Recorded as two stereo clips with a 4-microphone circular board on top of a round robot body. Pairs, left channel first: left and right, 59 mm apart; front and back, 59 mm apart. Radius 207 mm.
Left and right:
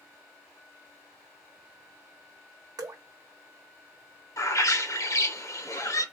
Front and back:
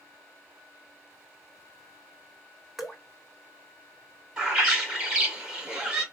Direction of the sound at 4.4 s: 110° left.